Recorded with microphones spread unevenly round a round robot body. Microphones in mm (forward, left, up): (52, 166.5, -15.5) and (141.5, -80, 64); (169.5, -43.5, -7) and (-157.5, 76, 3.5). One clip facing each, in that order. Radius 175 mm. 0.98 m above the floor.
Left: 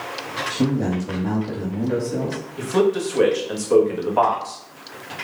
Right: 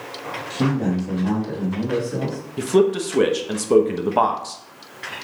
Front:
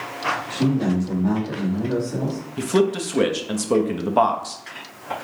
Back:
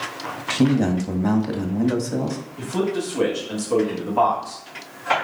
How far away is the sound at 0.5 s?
About 1.7 m.